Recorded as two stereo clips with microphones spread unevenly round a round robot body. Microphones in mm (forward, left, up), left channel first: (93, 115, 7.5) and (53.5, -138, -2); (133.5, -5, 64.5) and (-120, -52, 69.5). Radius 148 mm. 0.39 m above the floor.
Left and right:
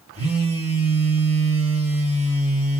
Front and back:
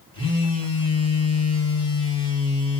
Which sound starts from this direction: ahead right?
A phone buzzing, at 0.1 s.